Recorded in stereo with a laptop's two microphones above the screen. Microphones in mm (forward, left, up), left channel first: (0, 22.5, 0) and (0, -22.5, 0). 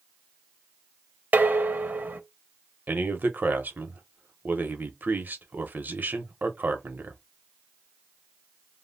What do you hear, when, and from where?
1.3 s dishes clattering: 35° right (ahead or behind), 0.5 m
2.9 s a man speaking: 40° right (ahead or behind), 0.7 m